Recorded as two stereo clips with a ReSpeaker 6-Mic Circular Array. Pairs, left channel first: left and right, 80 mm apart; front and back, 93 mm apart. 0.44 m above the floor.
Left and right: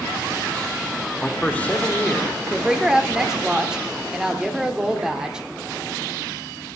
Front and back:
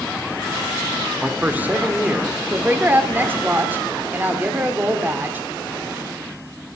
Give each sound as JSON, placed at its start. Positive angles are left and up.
{"t": 1.2, "sound": "a man speaking", "azimuth_deg": 135, "distance_m": 1.0}
{"t": 2.5, "sound": "a woman speaking", "azimuth_deg": -155, "distance_m": 1.0}